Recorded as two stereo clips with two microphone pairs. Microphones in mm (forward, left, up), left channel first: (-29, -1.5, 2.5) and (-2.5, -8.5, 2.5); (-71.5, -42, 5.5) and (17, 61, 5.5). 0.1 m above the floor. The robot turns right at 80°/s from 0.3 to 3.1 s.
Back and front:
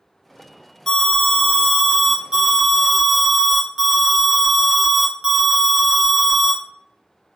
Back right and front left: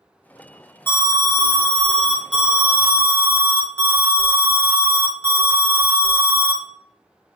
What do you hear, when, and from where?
0.9 s an alarm: 155° right, 0.8 m; by 6.6 s 25° left, 0.8 m